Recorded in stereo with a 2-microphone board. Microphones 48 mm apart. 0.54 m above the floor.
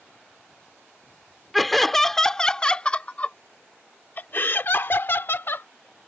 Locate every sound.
1.5 s laughter: centre (ahead or behind); by 5.7 s 55° left (ahead or behind)